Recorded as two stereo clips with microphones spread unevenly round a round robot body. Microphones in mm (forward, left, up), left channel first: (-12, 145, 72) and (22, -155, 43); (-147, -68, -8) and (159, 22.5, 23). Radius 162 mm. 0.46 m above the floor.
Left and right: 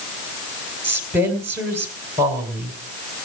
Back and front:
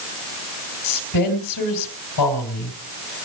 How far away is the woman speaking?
About 3 m.